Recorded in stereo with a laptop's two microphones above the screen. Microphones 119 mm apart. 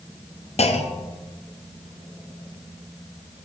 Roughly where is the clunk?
Left.